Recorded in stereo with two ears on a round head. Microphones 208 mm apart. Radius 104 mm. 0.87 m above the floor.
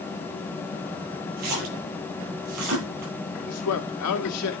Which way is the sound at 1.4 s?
85° right.